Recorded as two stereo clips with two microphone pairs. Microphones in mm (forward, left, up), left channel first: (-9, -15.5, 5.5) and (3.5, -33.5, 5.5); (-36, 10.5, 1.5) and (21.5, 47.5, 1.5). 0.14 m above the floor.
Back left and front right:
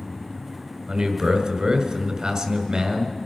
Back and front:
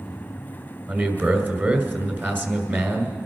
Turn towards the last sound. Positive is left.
turn(degrees=-10)